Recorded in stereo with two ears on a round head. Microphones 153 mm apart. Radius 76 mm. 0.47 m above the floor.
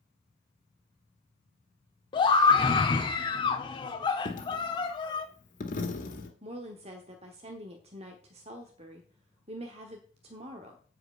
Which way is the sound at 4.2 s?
50° left (ahead or behind).